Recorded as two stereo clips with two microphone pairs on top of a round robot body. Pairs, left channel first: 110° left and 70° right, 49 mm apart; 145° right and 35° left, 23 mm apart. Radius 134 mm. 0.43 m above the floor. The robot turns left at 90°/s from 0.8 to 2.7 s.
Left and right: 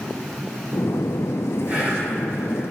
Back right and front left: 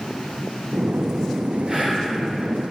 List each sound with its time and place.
1.7 s whispering: 10° right, 1.7 m; by 2.1 s 50° right, 1.7 m